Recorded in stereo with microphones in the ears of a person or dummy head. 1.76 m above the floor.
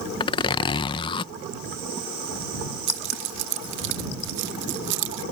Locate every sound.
0.2 s a zipper: 25° left (ahead or behind)
2.9 s keys jangling: 60° right (ahead or behind)